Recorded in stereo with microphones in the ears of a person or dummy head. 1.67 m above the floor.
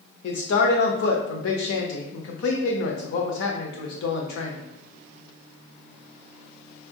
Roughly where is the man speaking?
Left.